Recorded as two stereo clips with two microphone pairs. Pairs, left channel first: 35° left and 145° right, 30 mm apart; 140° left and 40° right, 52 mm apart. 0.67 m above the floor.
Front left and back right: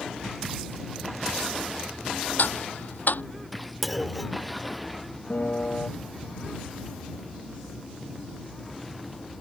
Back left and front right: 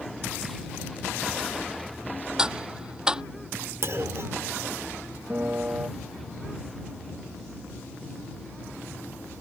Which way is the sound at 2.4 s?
35° left.